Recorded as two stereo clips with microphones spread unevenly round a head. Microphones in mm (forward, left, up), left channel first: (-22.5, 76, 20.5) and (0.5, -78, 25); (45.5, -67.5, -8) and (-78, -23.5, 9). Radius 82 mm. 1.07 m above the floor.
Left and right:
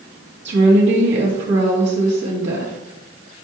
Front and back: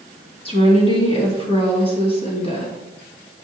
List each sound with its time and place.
0.5 s a woman speaking: 65° right, 2 m